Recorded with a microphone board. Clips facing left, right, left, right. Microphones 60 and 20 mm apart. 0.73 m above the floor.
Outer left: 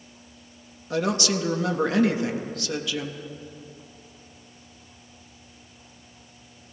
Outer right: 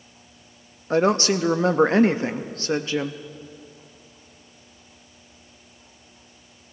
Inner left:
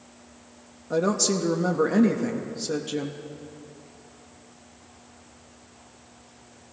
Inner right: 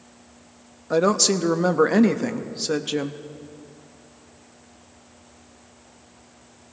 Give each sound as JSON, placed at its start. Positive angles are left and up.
{"t": 0.9, "sound": "a woman speaking", "side_deg": -30, "distance_m": 0.5}